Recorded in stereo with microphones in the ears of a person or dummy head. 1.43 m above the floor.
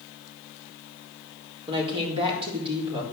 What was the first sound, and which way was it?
A woman speaking, 35° right (ahead or behind).